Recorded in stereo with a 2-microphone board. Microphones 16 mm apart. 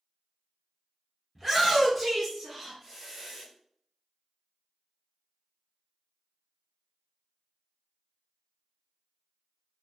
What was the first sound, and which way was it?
A shout, 10° left (ahead or behind).